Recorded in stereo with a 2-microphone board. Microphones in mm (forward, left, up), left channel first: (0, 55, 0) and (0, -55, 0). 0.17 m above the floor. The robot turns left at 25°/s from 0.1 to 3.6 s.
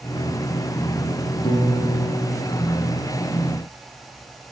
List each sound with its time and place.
1.4 s a piano: 130° left, 4 m; by 3.1 s 90° left, 4 m